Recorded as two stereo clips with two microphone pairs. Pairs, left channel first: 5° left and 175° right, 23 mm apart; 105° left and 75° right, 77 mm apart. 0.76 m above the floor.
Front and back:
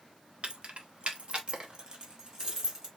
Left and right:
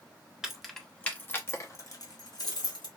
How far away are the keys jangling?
About 0.8 m.